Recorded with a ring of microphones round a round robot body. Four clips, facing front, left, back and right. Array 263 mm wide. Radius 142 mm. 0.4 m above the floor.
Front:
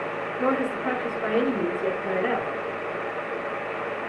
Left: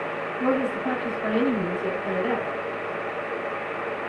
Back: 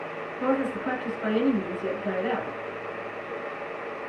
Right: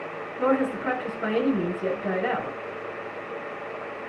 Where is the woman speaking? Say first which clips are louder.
Right 1 dB, front 1 dB; 70° right, 5 m.